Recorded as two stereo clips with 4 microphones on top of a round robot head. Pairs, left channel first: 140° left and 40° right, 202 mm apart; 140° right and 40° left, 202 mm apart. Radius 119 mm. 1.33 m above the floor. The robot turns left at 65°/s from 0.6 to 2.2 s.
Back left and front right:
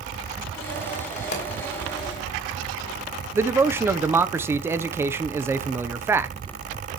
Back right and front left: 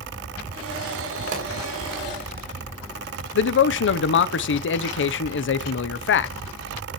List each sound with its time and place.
1.3 s a pop: 95° left, 4.5 m; by 1.5 s 85° left, 4.5 m
3.4 s a man speaking: 120° right, 0.8 m